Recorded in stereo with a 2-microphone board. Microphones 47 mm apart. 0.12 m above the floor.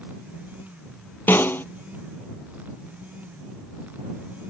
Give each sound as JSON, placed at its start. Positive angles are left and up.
{"t": 1.3, "sound": "a snare drum", "side_deg": 50}